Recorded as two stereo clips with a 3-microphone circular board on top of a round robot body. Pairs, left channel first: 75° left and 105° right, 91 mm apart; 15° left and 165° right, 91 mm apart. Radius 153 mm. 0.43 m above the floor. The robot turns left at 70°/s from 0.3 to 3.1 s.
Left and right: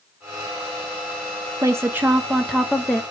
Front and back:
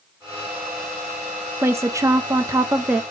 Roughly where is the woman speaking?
Behind right.